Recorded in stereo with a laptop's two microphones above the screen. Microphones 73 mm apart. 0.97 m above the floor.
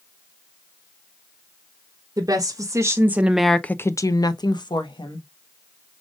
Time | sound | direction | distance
2.2 | a woman speaking | 50° right (ahead or behind) | 1.1 m